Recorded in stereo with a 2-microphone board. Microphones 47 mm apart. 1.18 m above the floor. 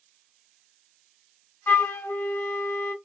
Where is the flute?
55° left (ahead or behind), 0.6 m.